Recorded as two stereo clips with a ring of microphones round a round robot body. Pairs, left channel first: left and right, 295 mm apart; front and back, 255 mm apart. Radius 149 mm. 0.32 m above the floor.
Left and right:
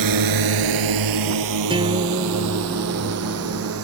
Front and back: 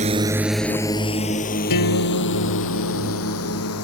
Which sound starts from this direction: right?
A drone, at 0.0 s.